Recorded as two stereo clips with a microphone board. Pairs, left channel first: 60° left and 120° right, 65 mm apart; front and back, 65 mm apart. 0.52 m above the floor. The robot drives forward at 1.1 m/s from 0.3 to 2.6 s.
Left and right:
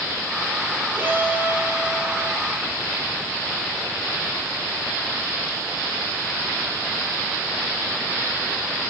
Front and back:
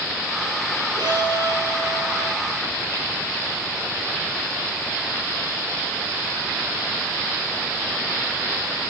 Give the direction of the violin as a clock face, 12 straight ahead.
6 o'clock.